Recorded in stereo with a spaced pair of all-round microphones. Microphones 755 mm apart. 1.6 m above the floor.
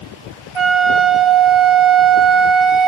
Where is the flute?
40° right (ahead or behind), 1.5 m.